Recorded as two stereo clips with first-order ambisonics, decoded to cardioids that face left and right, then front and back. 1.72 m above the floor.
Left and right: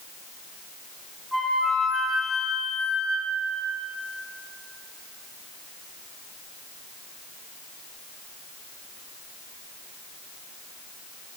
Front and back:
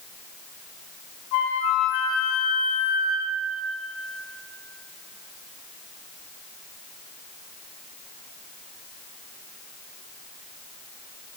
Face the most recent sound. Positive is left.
turn(degrees=0)